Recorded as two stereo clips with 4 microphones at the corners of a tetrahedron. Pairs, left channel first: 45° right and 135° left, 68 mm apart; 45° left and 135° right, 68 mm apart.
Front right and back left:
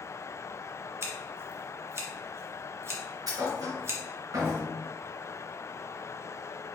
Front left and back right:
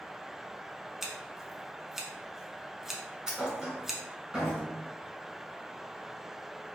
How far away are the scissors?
About 1.0 m.